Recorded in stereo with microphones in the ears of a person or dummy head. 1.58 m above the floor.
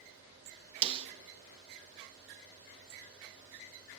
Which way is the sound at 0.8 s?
35° right (ahead or behind).